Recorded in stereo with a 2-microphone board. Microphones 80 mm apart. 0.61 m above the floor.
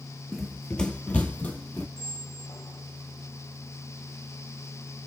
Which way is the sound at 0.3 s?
Centre (ahead or behind).